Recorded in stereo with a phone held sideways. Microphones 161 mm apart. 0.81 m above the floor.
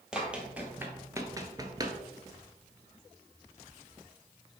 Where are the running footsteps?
5° right (ahead or behind), 1.4 m; by 2.0 s 25° right (ahead or behind), 0.9 m.